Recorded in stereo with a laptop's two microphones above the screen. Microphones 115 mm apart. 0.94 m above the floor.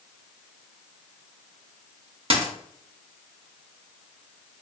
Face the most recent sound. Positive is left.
turn(degrees=-60)  # may be behind; listen again after turning